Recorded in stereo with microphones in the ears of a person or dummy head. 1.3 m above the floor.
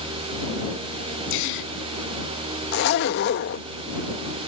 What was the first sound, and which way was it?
A gasp, 75° left (ahead or behind).